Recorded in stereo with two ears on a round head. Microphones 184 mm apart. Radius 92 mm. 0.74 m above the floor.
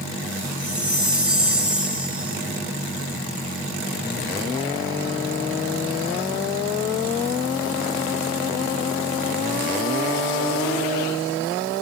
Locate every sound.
0.6 s a chime: 5° right (ahead or behind), 5 m